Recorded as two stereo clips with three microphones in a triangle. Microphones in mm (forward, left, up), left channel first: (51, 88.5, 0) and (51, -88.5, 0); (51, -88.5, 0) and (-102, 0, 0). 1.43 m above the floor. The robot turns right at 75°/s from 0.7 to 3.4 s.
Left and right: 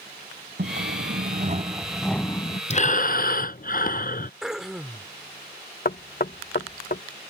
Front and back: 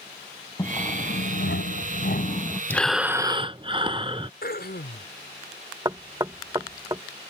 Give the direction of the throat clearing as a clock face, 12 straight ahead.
12 o'clock.